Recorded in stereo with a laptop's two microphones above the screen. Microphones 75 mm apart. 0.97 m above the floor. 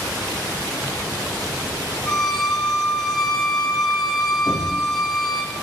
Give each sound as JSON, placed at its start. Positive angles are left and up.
{"t": 2.0, "sound": "a violin", "side_deg": 5, "distance_m": 1.3}
{"t": 4.5, "sound": "knocking", "side_deg": -80, "distance_m": 5.5}